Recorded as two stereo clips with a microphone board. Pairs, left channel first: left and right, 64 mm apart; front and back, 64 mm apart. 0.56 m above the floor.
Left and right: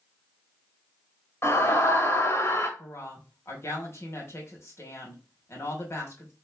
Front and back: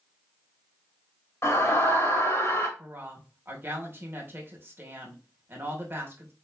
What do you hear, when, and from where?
1.4 s a scream: 45° left, 2 m
2.8 s a woman speaking: 130° left, 2.5 m